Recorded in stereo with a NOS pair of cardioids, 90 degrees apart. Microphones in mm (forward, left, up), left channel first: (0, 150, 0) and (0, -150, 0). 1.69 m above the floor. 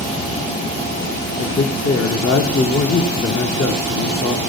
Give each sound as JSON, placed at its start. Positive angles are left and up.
{"t": 1.4, "sound": "a man speaking", "azimuth_deg": 50, "distance_m": 1.7}